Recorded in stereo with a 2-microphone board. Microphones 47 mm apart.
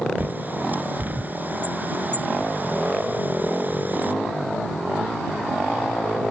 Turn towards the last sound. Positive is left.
turn(degrees=-40)  # may be behind; listen again after turning